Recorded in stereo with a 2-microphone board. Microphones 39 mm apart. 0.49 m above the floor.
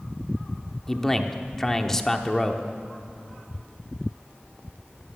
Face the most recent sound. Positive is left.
turn(degrees=10)  # may be behind; listen again after turning